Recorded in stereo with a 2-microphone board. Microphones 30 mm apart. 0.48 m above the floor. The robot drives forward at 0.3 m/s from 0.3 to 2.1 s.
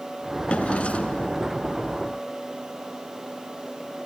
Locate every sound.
0.5 s a drawer: 40° left (ahead or behind), 1.8 m; by 1.4 s 45° left (ahead or behind), 1.6 m